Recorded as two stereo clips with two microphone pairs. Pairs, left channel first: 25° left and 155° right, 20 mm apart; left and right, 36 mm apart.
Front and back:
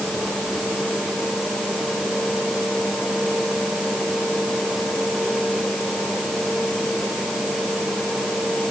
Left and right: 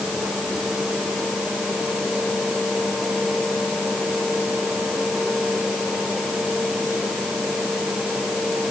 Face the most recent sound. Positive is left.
No sound to turn to.